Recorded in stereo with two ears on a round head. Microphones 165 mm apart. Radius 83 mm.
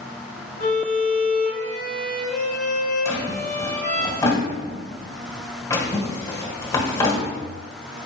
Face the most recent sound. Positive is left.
turn(degrees=20)  # may be behind; listen again after turning